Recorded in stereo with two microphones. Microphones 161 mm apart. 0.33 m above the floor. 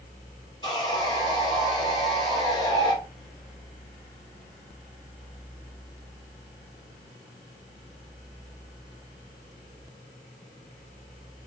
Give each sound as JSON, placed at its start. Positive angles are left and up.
{"t": 0.6, "sound": "sawing", "side_deg": 25, "distance_m": 1.4}